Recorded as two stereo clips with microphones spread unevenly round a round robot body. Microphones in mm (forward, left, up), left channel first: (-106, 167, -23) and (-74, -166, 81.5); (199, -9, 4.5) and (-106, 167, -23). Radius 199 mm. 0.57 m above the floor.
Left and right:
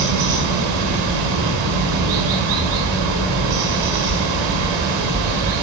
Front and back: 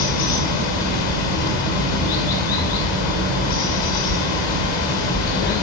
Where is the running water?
50° right, 5.5 m.